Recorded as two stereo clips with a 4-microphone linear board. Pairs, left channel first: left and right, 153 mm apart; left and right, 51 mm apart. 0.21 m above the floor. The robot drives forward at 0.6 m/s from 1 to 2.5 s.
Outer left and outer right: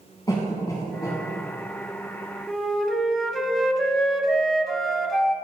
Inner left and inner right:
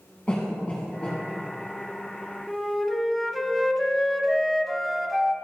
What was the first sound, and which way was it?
A cough, 25° left (ahead or behind).